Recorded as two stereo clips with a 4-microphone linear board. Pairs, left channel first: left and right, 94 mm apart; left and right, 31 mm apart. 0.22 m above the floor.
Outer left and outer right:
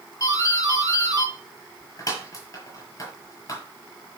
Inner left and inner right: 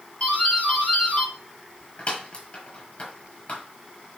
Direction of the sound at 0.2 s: 35° left (ahead or behind).